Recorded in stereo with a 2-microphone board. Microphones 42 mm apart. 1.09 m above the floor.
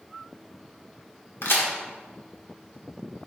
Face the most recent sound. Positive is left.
turn(degrees=70)  # may be behind; listen again after turning